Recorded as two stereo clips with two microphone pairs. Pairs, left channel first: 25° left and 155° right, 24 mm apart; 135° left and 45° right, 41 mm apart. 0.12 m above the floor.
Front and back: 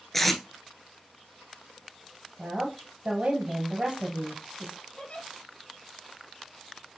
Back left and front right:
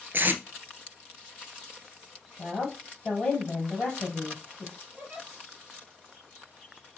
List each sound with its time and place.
0.1 s tape being pulled: 55° right, 0.9 m
2.4 s a woman speaking: 155° right, 2.5 m
5.0 s a giggle: 5° left, 3.5 m